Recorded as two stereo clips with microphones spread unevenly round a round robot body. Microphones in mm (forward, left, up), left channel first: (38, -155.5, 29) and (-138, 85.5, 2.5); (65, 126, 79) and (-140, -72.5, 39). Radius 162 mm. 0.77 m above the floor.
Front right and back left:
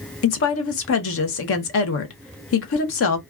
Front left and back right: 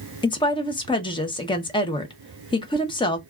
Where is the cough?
No cough in this recording.